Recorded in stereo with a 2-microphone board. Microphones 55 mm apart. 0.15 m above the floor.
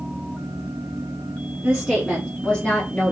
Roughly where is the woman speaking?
Centre.